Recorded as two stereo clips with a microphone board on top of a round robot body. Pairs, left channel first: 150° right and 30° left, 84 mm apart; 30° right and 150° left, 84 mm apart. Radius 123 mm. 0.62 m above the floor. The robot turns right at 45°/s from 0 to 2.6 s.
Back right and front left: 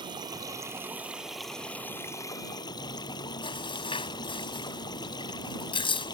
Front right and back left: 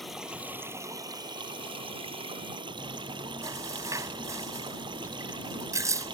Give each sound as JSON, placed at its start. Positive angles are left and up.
{"t": 0.0, "sound": "running water", "azimuth_deg": 60}
{"t": 2.8, "sound": "chewing", "azimuth_deg": -160}